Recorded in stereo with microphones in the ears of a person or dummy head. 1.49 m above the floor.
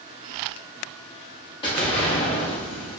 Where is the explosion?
30° left (ahead or behind), 1.0 m.